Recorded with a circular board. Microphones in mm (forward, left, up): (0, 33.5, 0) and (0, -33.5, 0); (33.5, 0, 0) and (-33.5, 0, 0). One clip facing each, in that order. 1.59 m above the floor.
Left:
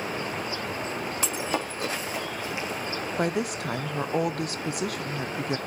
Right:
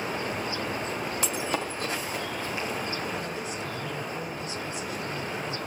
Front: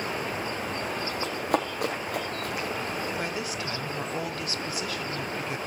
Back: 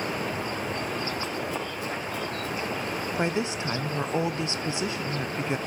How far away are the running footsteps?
About 3.5 m.